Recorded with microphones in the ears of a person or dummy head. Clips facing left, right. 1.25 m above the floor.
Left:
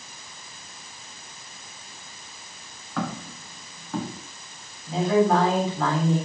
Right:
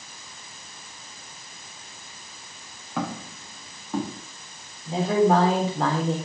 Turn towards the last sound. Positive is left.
turn(degrees=-20)  # may be behind; listen again after turning